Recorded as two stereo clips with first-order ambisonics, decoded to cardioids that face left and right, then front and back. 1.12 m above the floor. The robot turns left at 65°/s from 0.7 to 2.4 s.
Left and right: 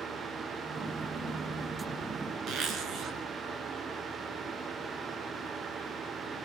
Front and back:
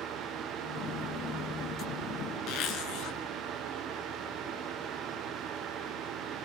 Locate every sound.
2.5 s a zipper: 35° right, 3.5 m